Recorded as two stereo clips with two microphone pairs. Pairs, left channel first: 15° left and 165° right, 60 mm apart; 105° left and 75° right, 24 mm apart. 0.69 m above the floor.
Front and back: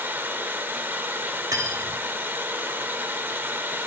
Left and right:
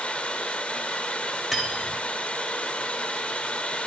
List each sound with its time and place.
0.0 s running water: 140° left, 0.7 m
1.5 s cutlery clinking: 170° right, 2.0 m